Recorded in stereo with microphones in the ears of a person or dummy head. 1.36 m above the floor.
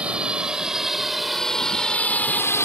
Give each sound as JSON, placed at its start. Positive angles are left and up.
{"t": 0.0, "sound": "a drone", "side_deg": -5}